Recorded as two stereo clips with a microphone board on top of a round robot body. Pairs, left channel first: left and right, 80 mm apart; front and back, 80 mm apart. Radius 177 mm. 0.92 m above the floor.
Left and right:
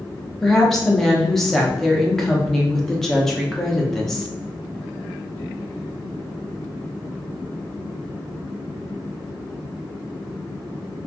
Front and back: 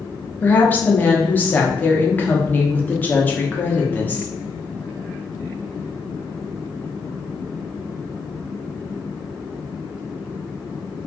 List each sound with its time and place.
0.4 s a woman speaking: 10° left, 0.9 m